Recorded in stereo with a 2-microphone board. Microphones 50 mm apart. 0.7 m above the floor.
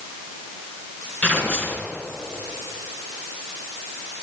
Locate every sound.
1.2 s tearing paper: 25° left (ahead or behind), 3.5 m